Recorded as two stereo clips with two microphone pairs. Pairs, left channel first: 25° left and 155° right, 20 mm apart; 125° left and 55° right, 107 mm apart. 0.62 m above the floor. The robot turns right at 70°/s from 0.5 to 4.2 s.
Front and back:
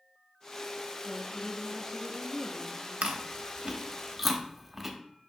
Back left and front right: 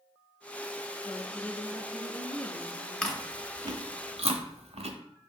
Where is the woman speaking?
175° right, 0.6 m; by 3.1 s 30° right, 0.6 m.